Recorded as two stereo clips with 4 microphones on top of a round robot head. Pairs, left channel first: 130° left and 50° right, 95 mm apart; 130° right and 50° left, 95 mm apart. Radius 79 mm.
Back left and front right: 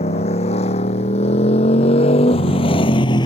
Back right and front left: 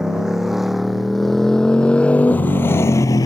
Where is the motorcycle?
135° left; by 3.3 s 175° left.